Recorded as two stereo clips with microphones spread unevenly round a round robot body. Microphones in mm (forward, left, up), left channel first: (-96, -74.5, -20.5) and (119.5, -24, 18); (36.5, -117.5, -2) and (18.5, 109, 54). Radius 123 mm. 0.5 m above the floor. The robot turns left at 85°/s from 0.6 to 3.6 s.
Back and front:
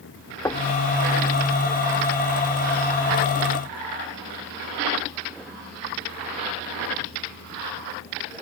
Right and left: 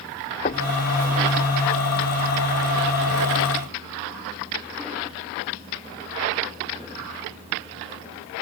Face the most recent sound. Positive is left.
turn(degrees=0)